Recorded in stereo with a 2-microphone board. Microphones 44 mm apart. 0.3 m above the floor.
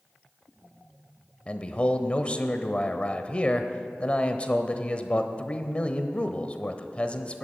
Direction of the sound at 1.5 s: 30° left (ahead or behind).